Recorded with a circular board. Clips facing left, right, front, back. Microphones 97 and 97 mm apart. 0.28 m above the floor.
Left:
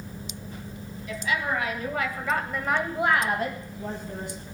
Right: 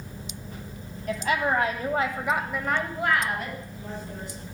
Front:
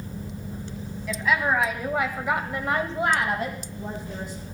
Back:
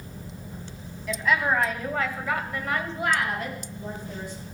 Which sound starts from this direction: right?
A woman speaking, at 1.1 s.